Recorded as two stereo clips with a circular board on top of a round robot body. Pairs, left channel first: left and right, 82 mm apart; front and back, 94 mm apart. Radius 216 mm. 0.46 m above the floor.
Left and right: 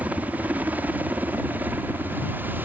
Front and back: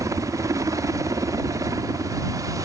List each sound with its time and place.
0.0 s a helicopter: 150° right; by 2.6 s 145° right